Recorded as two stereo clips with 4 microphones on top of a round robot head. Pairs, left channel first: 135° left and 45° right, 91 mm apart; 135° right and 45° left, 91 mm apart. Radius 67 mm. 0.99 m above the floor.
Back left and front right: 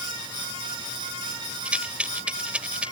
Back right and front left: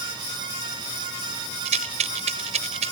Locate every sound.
1.6 s a rattle: 35° left